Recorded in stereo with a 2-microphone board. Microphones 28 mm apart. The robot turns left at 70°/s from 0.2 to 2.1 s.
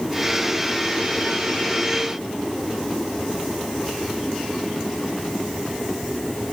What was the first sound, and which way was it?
Only background noise.